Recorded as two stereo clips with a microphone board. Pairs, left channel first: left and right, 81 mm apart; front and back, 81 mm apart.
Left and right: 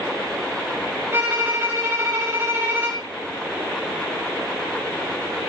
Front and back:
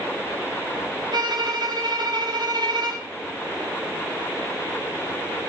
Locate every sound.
1.1 s a violin: 150° right, 10 m